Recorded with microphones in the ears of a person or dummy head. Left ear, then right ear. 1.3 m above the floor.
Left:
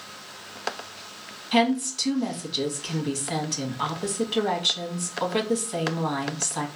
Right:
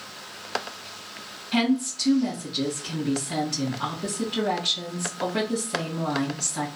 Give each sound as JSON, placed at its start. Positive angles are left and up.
{"t": 1.5, "sound": "a woman speaking", "side_deg": 80, "distance_m": 1.4}